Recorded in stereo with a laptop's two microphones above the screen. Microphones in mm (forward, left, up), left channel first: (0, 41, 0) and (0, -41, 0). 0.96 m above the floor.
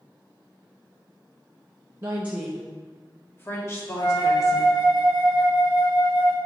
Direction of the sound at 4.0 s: 70° left (ahead or behind).